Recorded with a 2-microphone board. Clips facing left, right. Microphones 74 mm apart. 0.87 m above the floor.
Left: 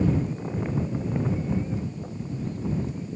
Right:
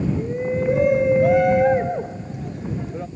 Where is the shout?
75° right (ahead or behind); by 3.1 s 80° right.